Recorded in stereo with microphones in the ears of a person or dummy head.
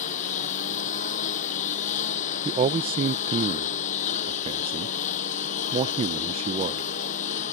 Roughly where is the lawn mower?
Left.